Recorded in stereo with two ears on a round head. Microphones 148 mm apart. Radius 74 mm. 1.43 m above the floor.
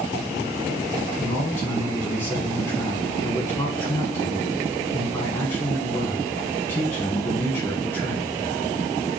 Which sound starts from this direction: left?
A man speaking, at 1.2 s.